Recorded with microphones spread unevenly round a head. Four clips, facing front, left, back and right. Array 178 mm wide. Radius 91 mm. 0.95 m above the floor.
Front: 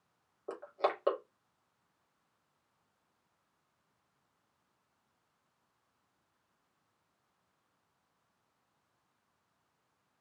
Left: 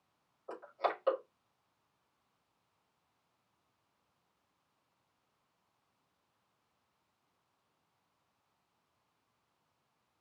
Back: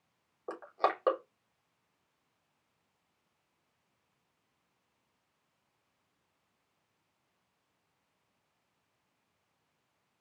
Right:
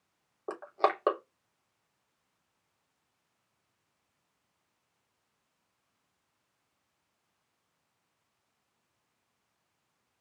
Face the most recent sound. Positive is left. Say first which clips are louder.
# right 7 dB, back 2 dB
turn(degrees=-95)